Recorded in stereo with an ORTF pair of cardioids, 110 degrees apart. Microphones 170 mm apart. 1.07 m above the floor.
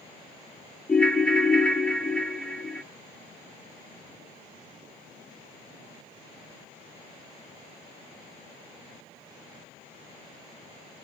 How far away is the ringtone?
About 0.8 m.